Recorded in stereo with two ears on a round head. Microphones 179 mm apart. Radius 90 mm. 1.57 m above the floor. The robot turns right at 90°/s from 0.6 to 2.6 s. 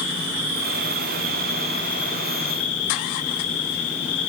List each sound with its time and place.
0.0 s an insect: 105° right, 4 m; by 4.3 s 75° left, 4 m